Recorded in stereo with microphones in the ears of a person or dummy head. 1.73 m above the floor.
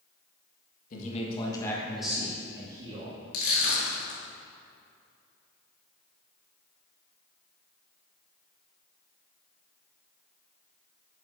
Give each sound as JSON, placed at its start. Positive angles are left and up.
{"t": 0.9, "sound": "a man speaking", "side_deg": 50, "distance_m": 1.8}
{"t": 3.3, "sound": "crushing", "side_deg": 65, "distance_m": 2.5}